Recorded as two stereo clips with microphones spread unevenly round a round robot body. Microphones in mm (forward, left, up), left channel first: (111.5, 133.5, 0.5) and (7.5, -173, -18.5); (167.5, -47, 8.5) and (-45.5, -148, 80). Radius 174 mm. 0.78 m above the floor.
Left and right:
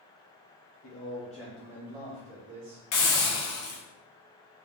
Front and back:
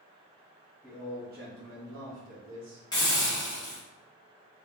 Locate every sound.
0.8 s a man speaking: 105° left, 0.8 m; by 2.8 s 160° right, 1.5 m
2.9 s a hiss: 75° left, 1.0 m